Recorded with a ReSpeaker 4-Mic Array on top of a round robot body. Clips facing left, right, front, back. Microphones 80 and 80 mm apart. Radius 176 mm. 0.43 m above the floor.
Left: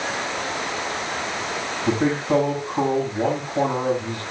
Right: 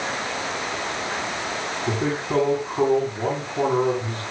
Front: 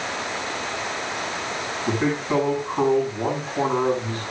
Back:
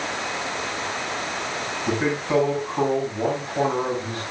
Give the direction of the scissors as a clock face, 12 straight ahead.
I don't hear scissors.